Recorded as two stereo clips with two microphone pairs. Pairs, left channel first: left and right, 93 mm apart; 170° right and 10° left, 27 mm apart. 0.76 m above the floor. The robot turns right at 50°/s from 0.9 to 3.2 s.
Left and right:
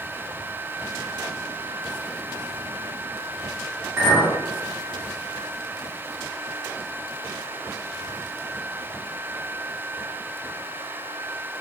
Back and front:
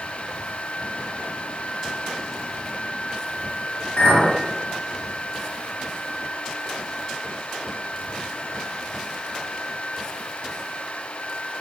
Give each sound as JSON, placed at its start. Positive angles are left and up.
{"t": 4.0, "sound": "a clink", "azimuth_deg": -155, "distance_m": 2.0}